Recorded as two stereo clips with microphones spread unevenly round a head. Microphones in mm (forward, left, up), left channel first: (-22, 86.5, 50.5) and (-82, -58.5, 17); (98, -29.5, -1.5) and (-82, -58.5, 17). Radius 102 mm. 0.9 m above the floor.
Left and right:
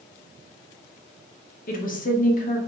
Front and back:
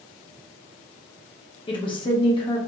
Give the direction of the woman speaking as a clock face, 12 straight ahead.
10 o'clock.